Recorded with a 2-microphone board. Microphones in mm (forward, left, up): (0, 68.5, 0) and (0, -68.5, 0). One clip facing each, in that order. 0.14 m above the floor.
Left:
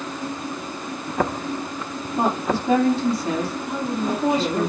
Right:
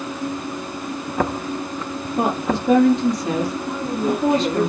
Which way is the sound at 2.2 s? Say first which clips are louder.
Right 1 dB; 20° right (ahead or behind).